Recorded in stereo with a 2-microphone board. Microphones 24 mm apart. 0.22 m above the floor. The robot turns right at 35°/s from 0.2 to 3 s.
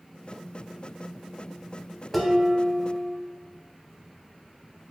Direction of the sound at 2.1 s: Centre (ahead or behind).